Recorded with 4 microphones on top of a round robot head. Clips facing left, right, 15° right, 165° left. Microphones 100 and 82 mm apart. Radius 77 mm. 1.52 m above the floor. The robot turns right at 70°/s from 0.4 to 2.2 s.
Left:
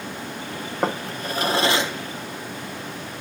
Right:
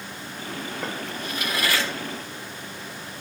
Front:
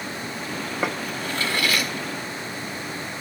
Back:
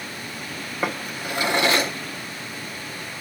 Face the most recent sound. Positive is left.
turn(degrees=165)